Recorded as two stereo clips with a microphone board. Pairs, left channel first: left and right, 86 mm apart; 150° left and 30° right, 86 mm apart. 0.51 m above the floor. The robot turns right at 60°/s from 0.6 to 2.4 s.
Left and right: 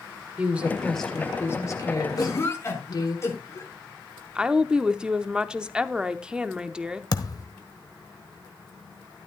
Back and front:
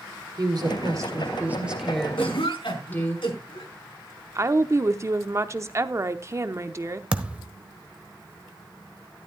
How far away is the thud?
About 1.0 m.